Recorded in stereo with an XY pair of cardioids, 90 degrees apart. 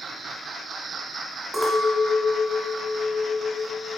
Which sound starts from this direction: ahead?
A clink, at 1.5 s.